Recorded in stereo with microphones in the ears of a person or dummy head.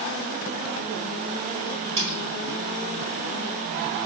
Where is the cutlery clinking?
25° right (ahead or behind), 1.1 m.